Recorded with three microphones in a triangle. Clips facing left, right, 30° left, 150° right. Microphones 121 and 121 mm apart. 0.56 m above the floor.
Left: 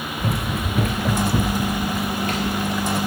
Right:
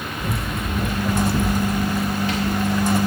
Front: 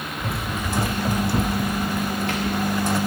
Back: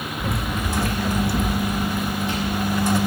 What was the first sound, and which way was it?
Running footsteps, 120° left.